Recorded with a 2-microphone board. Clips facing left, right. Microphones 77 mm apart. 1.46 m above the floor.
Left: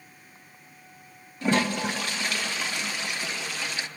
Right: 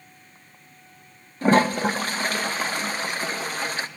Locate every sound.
1.4 s a toilet flushing: 40° right (ahead or behind), 0.7 m